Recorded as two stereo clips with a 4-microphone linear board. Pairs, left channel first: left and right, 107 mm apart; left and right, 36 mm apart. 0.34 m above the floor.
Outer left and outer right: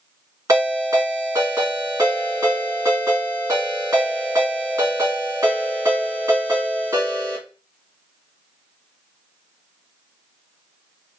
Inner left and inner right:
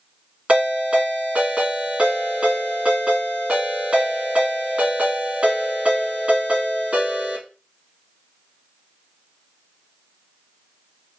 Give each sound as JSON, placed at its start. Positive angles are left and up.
{"t": 0.5, "sound": "a ringtone", "side_deg": -40, "distance_m": 2.5}